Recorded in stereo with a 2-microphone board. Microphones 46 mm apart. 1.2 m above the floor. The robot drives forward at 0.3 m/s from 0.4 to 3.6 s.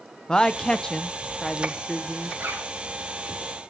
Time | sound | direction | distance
0.3 | a woman speaking | 15° left (ahead or behind) | 0.5 m
2.4 | a zipper | 55° right (ahead or behind) | 2.5 m